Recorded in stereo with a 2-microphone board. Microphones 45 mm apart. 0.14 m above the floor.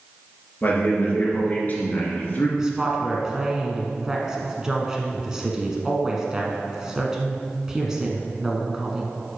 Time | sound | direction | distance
0.6 | a man speaking | 40° left (ahead or behind) | 2.5 m
2.6 | a woman speaking | 15° right (ahead or behind) | 1.2 m